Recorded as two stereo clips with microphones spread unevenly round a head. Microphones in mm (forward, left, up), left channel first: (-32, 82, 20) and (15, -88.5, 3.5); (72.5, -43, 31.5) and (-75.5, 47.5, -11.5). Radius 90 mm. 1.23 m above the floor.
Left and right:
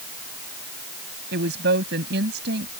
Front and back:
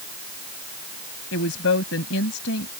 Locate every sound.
1.3 s a woman speaking: 40° right